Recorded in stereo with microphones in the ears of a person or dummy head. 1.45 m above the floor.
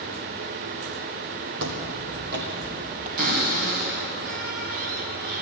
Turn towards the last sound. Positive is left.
turn(degrees=-50)  # may be behind; listen again after turning